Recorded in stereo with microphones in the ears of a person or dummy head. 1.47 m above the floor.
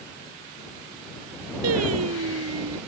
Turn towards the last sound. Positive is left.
turn(degrees=-85)